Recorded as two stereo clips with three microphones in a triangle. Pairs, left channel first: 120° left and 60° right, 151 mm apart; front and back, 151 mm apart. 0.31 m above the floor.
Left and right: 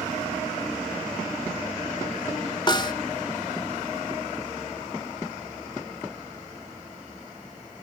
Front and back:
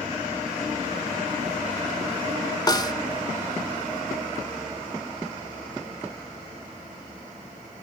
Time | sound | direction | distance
2.7 | a snare drum | 65° left | 1.0 m